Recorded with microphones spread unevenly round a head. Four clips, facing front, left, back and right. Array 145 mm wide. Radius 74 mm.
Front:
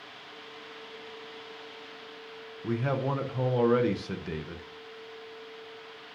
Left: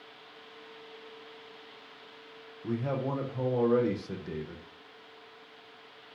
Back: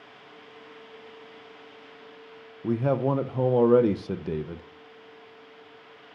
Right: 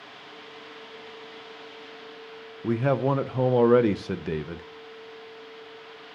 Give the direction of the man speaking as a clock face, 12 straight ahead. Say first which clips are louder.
Right 8 dB, back 5 dB; 4 o'clock.